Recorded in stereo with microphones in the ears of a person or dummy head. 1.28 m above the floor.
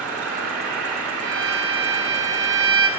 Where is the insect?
75° right (ahead or behind), 1.8 m.